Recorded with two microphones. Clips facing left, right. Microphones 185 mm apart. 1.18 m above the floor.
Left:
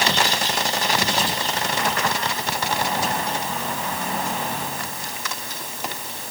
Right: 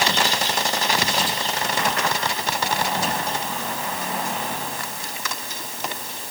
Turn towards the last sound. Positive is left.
No sound to turn to.